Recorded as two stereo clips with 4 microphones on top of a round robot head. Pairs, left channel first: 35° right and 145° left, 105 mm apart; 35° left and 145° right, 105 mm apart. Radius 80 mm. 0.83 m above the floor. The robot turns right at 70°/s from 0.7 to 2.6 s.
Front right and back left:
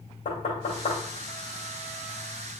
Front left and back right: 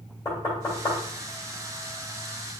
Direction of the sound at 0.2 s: 25° right.